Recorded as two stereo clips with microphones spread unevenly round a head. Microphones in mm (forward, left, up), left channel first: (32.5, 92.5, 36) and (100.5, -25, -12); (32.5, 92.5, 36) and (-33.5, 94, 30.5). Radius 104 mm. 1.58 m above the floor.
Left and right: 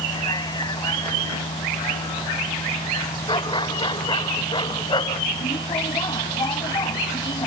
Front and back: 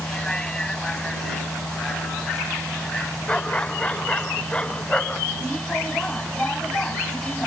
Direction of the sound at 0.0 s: 75° left.